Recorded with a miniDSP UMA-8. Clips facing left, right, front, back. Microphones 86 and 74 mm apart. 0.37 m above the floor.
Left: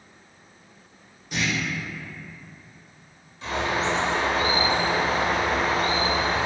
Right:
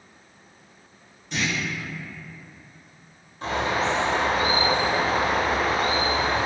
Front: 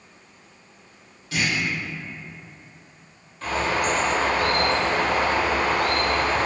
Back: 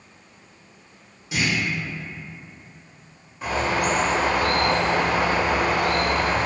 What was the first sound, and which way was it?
A clunk, 155° left.